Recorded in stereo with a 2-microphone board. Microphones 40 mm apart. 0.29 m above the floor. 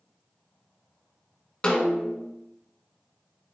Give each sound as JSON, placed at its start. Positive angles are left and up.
{"t": 1.6, "sound": "a snare drum", "side_deg": 20, "distance_m": 1.2}